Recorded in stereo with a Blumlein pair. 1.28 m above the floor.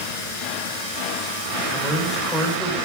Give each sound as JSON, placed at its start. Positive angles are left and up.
{"t": 1.7, "sound": "a man speaking", "azimuth_deg": 5, "distance_m": 4.0}